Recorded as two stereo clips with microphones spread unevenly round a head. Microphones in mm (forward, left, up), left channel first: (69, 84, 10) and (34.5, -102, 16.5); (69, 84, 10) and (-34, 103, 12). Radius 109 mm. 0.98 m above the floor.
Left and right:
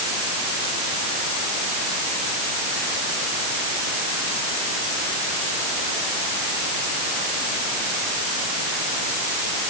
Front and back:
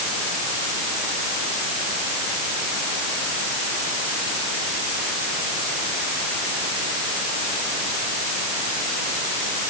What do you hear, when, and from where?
Only background noise.